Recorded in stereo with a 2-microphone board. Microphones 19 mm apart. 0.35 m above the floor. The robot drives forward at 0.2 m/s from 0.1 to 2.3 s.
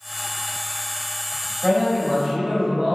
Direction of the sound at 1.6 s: 45° right (ahead or behind).